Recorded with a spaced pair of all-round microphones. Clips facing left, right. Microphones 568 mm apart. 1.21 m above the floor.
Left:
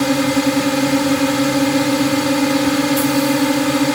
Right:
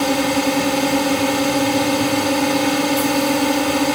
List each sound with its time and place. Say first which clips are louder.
0.0 s a drone: left 3 dB; 40° left (ahead or behind)